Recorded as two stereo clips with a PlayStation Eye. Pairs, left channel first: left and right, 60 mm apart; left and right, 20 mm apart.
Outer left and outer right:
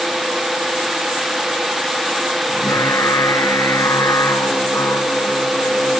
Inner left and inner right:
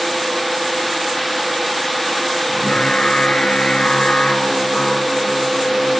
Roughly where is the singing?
Left.